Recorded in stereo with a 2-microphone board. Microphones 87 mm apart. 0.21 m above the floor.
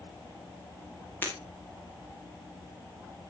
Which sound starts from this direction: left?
Breaking glass, at 1.2 s.